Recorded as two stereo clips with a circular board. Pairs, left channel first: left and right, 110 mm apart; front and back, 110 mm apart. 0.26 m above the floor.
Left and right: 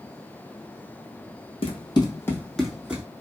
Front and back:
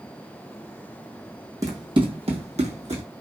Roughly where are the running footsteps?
Behind left.